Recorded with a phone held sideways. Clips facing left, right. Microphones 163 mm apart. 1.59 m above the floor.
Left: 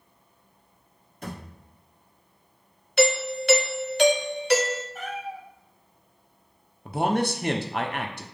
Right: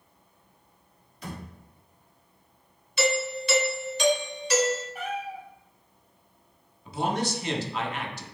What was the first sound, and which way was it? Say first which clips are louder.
A thud: left 1 dB; 50° left (ahead or behind).